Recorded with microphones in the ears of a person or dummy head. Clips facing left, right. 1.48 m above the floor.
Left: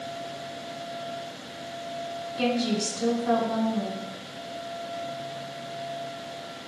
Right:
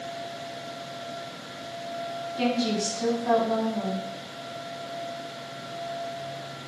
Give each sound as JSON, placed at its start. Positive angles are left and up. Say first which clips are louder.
{"t": 2.4, "sound": "a woman speaking", "louder": "even", "side_deg": -50, "distance_m": 4.0}